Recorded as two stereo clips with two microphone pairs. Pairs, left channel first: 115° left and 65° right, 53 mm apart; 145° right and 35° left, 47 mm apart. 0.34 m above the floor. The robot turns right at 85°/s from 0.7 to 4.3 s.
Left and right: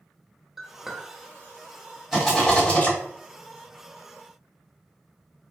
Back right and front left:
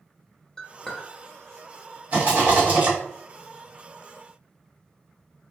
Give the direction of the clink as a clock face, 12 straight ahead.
5 o'clock.